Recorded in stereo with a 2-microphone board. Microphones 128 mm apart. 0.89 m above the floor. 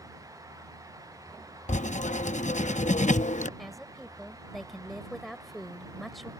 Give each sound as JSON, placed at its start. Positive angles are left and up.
{"t": 1.7, "sound": "writing", "side_deg": 75}
{"t": 3.6, "sound": "a woman speaking", "side_deg": 0}